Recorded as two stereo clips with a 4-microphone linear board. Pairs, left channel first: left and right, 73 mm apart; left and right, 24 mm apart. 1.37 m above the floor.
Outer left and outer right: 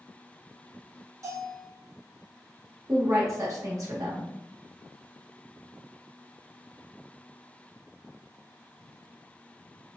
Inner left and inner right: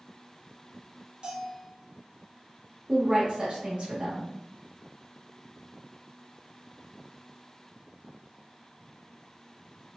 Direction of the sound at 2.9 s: 45° right (ahead or behind).